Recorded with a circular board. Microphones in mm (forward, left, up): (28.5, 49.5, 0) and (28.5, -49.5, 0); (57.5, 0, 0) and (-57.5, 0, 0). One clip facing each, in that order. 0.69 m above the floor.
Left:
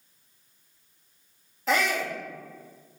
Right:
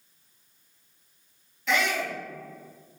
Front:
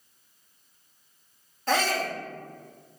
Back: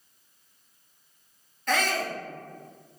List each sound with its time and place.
1.7 s a shout: 50° left, 0.7 m